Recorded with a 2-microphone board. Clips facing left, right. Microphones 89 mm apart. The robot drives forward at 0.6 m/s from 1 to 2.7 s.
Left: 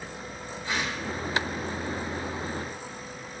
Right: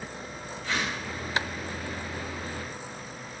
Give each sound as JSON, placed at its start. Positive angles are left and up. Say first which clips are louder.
{"t": 0.6, "sound": "a whoosh", "louder": "even", "side_deg": 20, "distance_m": 3.0}